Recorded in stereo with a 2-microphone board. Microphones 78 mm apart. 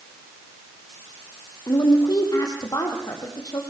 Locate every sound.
1.7 s a woman speaking: 50° left (ahead or behind), 4.5 m